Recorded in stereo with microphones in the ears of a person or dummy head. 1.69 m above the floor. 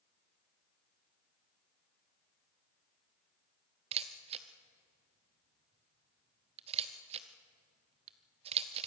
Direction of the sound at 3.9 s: 30° right (ahead or behind).